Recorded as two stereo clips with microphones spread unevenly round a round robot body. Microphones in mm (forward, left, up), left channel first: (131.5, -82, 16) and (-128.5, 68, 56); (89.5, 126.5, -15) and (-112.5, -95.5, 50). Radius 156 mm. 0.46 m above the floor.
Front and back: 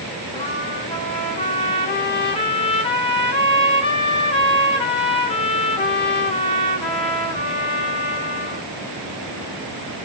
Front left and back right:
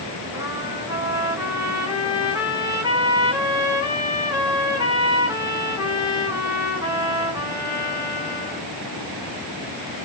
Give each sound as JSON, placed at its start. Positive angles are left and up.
{"t": 0.3, "sound": "a trumpet", "azimuth_deg": -40, "distance_m": 0.6}